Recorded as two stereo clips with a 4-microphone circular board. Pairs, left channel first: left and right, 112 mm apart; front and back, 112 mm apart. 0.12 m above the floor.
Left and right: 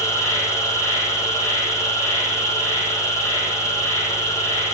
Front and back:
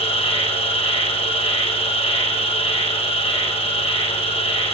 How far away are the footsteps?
No footsteps in this recording.